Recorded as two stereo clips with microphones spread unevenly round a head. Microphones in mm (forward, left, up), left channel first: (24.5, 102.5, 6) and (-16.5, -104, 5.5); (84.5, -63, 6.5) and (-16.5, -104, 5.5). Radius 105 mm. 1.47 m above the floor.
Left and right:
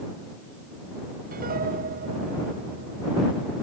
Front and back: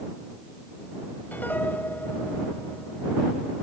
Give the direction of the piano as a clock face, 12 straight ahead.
2 o'clock.